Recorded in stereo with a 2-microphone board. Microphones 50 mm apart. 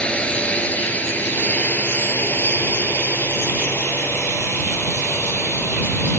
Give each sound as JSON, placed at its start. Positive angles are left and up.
{"t": 0.0, "sound": "a drone", "side_deg": 20}